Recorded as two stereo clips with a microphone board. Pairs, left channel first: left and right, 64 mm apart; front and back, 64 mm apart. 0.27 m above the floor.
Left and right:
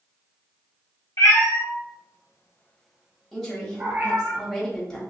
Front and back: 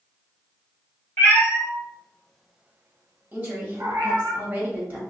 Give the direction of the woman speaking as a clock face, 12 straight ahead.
6 o'clock.